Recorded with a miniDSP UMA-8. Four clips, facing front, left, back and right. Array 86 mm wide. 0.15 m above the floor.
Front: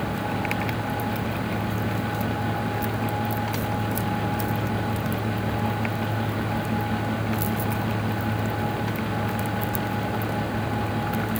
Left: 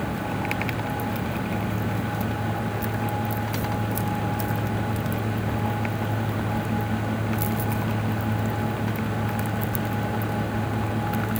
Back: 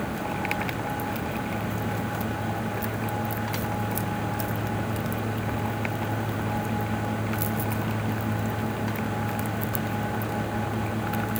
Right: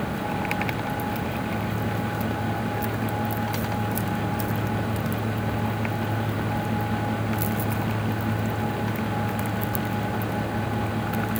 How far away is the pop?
I don't hear a pop.